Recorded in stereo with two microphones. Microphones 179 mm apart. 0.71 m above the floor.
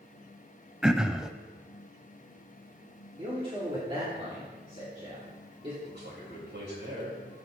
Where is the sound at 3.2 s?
30° right (ahead or behind), 2.5 m.